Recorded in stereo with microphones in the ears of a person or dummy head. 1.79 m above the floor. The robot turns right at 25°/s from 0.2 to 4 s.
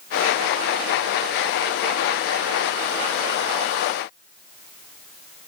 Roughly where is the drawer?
No drawer in this recording.